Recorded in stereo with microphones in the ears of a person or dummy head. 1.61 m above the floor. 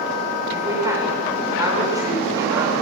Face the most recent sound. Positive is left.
turn(degrees=-15)  # may be behind; listen again after turning